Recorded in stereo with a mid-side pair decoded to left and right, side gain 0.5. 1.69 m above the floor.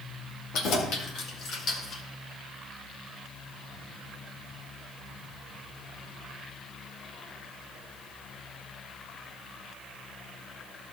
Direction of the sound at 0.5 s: 70° left.